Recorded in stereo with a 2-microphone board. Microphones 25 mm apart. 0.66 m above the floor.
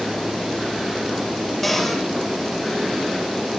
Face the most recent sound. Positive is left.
turn(degrees=10)  # may be behind; listen again after turning